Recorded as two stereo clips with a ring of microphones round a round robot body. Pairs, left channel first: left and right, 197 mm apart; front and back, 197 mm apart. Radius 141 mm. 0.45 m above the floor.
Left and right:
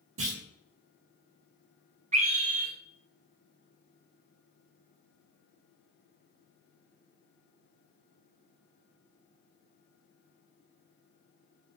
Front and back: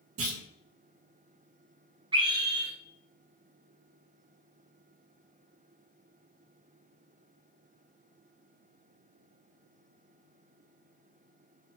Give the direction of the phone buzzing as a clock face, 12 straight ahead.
No phone buzzing in this recording.